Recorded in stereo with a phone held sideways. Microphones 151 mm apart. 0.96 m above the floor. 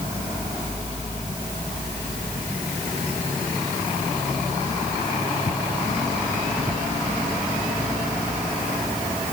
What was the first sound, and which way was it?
Only background noise.